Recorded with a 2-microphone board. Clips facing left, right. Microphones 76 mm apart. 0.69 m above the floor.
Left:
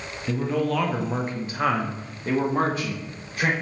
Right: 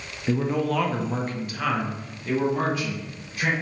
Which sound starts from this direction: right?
A man speaking, at 0.3 s.